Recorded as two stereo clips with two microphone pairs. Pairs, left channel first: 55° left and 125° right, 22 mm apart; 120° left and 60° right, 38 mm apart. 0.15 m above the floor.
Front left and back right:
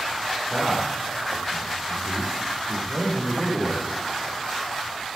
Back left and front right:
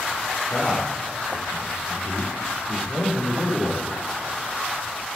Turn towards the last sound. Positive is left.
turn(degrees=175)